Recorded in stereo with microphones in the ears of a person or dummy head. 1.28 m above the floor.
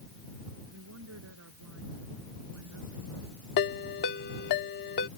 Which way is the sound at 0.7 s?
75° right (ahead or behind).